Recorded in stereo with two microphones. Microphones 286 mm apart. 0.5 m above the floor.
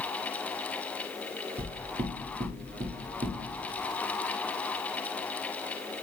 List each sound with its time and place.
1.6 s knocking: 40° right (ahead or behind), 0.6 m